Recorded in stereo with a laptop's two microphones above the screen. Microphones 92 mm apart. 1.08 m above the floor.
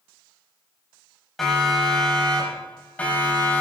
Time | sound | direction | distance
1.4 | a siren | centre (ahead or behind) | 5 m